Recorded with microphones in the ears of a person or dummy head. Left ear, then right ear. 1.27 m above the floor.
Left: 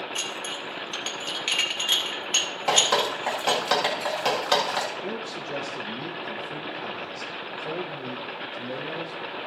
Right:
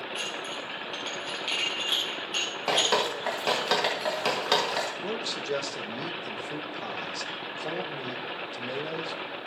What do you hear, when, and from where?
0.1 s dishes clattering: 25° left (ahead or behind), 1.2 m
2.7 s dripping: centre (ahead or behind), 1.6 m
5.0 s a man speaking: 50° right (ahead or behind), 1.3 m